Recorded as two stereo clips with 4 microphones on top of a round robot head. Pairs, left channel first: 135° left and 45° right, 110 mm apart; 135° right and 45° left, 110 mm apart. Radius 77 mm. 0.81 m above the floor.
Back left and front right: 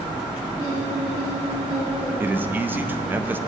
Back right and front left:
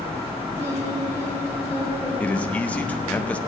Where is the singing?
20° right, 4 m.